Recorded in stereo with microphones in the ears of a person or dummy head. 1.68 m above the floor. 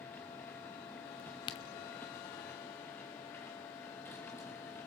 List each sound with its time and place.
0.0 s a machine running: 5° left (ahead or behind), 1.0 m
1.2 s a crack: 20° left (ahead or behind), 0.8 m